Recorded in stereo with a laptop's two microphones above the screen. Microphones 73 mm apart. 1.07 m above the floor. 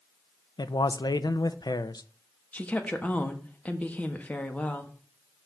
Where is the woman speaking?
20° left (ahead or behind), 1.4 m.